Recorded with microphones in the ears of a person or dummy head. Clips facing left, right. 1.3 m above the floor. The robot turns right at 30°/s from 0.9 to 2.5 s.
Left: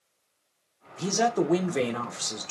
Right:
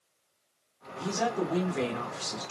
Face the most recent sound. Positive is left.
turn(degrees=125)